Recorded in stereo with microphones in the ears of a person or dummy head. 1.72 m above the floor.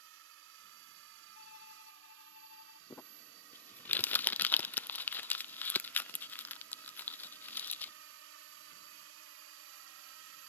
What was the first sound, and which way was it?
A drone, 65° right (ahead or behind).